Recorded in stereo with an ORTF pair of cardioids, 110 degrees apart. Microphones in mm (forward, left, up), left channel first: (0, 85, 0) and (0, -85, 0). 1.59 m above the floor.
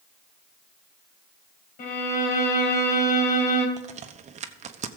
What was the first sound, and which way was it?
A violin, 65° left.